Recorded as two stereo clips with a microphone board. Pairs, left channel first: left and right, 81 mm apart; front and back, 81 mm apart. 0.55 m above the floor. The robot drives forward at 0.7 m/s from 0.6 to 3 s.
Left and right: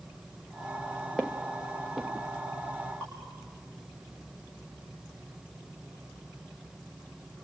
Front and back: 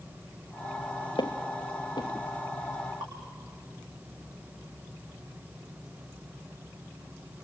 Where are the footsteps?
5° right, 1.6 m; by 2.1 s 10° right, 1.0 m.